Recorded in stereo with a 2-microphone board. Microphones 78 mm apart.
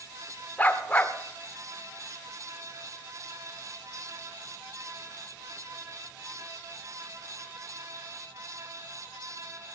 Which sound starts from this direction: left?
A dog barking, at 0.6 s.